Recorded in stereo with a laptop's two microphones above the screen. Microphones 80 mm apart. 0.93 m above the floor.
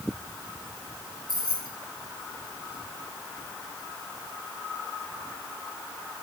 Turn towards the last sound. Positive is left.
turn(degrees=65)  # may be behind; listen again after turning